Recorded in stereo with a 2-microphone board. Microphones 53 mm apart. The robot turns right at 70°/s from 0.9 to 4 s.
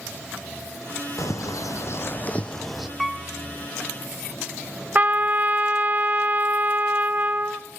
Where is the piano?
Centre (ahead or behind), 0.8 m; by 3.2 s 10° right (ahead or behind), 0.8 m.